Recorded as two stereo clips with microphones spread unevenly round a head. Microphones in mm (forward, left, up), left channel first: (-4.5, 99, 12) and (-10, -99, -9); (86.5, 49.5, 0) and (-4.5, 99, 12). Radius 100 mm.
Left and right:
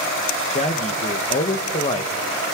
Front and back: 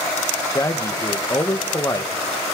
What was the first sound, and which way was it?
A man speaking, 25° left.